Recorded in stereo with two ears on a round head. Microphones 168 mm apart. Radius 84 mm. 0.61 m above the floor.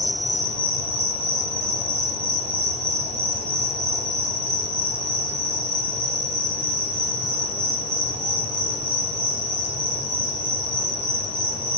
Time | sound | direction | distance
0.0 | an insect | 35° right (ahead or behind) | 1.7 m